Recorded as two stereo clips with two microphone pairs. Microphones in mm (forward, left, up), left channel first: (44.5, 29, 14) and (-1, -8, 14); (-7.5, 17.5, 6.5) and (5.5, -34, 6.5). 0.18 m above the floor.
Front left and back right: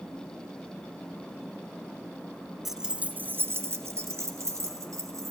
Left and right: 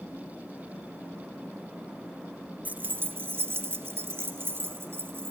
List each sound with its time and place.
2.6 s keys jangling: 60° right, 1.0 m; by 5.3 s 120° right, 3 m